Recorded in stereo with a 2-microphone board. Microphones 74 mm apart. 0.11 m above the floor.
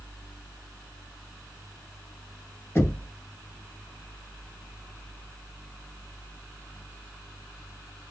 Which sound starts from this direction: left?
Knocking, at 2.8 s.